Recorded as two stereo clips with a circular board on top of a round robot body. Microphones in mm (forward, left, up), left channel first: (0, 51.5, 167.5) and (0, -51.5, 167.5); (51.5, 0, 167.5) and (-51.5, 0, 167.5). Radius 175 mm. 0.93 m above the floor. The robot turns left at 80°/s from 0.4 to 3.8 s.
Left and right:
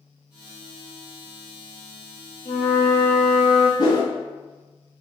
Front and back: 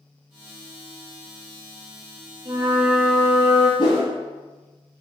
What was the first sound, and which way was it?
A flute, 125° left.